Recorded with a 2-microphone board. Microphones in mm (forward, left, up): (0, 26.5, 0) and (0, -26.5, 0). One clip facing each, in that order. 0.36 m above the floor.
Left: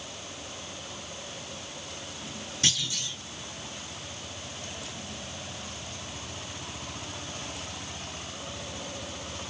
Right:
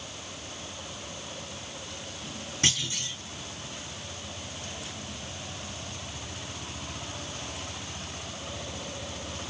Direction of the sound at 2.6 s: 35° right (ahead or behind).